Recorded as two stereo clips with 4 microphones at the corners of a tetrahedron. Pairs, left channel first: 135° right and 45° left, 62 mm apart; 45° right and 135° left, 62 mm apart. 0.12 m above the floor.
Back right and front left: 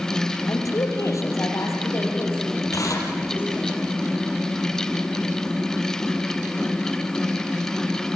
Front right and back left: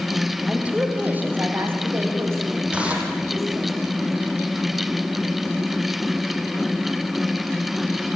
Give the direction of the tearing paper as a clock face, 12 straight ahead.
5 o'clock.